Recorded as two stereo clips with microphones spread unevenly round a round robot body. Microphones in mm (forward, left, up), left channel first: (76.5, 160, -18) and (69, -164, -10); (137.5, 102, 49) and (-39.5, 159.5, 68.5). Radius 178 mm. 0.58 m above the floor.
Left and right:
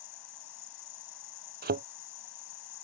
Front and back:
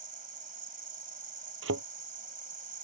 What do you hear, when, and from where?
0.0 s an insect: 115° left
1.6 s a thud: 160° right